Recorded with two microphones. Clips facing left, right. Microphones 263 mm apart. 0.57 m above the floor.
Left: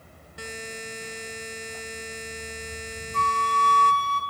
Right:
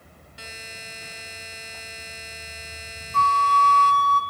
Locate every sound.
0.4 s a buzzer: 55° left (ahead or behind), 0.9 m
3.1 s a flute: 60° right (ahead or behind), 2.5 m